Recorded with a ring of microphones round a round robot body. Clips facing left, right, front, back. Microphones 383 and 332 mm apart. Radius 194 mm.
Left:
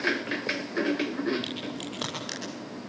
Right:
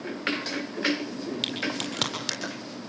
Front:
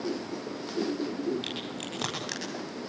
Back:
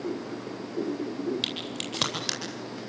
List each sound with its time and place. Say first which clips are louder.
1.4 s a crack: right 3 dB, back 1 dB; 125° right, 9.5 m